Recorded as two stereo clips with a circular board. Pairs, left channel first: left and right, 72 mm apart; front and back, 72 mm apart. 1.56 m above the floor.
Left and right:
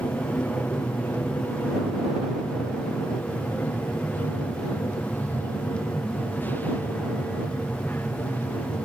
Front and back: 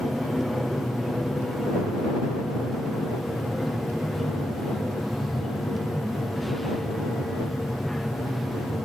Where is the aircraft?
85° left.